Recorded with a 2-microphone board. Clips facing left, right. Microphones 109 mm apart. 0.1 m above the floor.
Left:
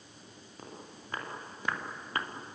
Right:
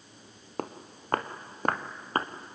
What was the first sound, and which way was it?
Footsteps, 65° right (ahead or behind).